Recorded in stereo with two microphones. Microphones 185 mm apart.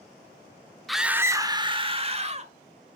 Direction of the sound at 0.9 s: Centre (ahead or behind).